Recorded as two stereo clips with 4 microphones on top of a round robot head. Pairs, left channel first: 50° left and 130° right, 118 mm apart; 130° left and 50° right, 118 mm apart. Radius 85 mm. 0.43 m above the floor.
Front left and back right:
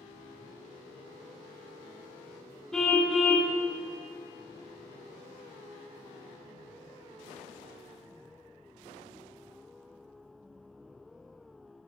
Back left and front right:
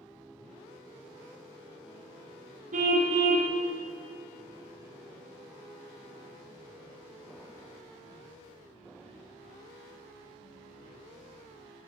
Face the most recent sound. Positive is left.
turn(degrees=-35)